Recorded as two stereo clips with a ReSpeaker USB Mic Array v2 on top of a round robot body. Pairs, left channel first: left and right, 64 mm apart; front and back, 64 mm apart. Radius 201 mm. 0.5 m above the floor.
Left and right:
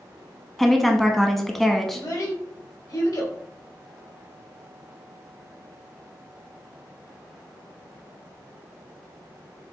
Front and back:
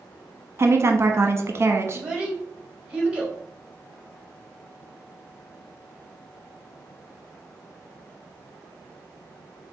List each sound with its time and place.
0.6 s a woman speaking: 175° left, 1.1 m
1.9 s a child speaking: 105° left, 2 m